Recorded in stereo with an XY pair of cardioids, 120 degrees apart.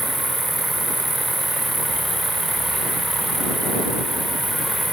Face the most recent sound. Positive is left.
turn(degrees=-5)